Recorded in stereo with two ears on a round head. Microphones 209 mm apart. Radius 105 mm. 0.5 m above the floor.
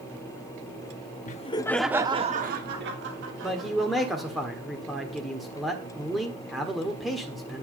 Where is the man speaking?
Centre (ahead or behind), 1.4 m.